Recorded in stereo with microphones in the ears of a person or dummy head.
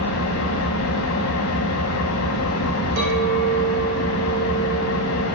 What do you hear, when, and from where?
0.0 s an engine running: 85° left, 1.3 m
3.0 s a clink: 70° right (ahead or behind), 4 m